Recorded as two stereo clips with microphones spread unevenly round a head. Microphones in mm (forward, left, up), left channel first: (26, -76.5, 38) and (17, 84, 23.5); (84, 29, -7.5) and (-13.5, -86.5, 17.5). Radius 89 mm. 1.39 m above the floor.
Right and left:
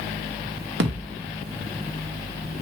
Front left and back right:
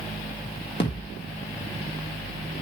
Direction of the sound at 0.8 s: 110° left.